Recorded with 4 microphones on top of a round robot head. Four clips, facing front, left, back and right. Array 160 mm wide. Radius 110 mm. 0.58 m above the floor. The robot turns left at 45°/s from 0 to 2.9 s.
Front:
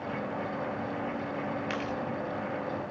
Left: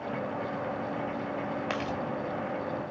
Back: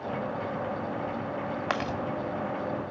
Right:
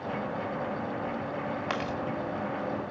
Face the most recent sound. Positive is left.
turn(degrees=125)